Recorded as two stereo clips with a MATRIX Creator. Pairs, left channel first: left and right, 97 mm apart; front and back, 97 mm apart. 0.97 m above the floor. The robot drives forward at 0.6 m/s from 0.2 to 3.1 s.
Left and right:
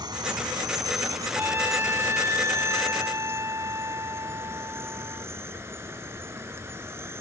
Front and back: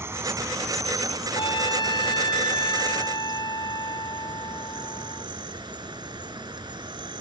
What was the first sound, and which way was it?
An insect, 120° right.